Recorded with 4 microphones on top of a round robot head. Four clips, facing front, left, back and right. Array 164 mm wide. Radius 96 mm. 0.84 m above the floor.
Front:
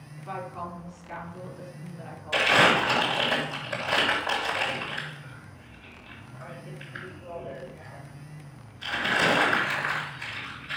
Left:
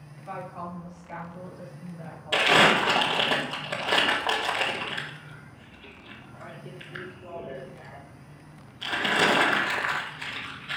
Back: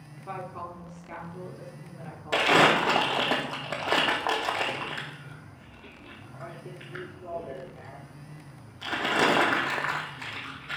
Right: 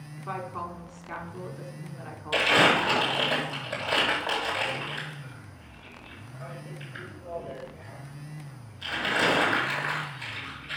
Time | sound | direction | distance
0.2 | a woman speaking | 115° right | 2.5 m
2.3 | crumpling | 155° left | 2.5 m